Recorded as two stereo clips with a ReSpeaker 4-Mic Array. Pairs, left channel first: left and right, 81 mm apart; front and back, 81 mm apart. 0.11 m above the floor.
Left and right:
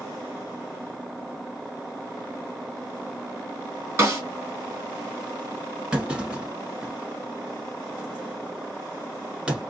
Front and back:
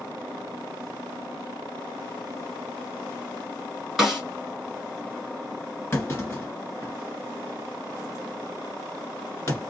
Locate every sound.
4.0 s a snare drum: 95° right, 1.8 m
5.9 s a clunk: 25° right, 1.5 m